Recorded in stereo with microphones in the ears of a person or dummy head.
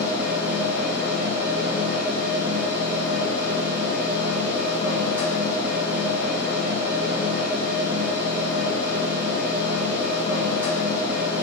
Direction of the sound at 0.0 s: 15° right (ahead or behind).